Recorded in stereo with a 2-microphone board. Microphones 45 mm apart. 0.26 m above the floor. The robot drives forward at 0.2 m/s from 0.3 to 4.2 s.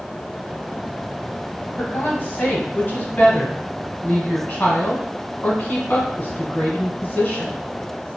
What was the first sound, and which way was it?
A woman speaking, 45° left (ahead or behind).